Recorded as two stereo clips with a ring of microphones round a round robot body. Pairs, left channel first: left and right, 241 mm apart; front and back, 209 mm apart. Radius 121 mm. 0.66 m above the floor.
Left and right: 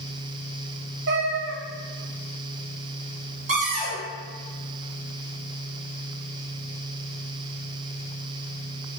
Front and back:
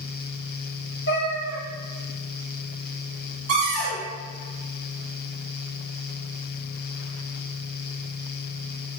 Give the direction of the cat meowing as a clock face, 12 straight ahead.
2 o'clock.